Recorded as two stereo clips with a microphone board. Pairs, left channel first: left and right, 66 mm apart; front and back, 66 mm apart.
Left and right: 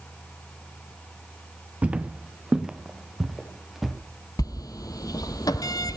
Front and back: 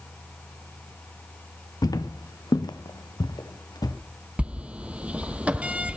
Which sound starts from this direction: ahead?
Footsteps, at 1.8 s.